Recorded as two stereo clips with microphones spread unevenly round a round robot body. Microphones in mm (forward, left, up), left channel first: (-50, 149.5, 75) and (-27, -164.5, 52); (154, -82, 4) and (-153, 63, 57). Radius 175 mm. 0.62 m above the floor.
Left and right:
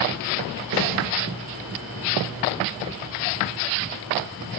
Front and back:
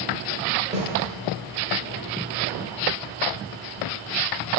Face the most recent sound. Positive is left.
turn(degrees=-130)